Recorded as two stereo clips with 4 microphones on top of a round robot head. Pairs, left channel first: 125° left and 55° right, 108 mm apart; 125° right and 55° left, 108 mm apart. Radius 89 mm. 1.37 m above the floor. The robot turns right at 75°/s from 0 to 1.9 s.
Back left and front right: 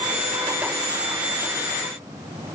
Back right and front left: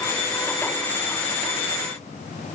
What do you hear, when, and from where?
Only background noise.